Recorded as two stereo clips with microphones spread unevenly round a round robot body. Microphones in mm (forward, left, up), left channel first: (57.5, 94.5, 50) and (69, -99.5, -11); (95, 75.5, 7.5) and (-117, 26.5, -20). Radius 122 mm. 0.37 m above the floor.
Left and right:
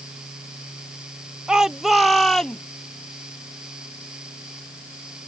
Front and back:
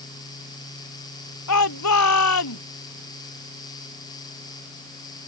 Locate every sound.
1.5 s a shout: straight ahead; by 2.6 s 10° left